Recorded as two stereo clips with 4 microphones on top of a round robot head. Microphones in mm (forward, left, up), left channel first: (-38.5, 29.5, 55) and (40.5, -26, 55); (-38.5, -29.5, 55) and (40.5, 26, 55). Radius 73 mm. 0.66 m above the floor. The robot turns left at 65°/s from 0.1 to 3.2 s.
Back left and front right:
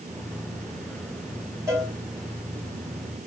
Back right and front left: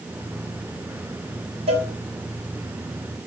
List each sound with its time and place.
1.7 s a cowbell: 25° left, 6.5 m; by 1.9 s 10° left, 6.5 m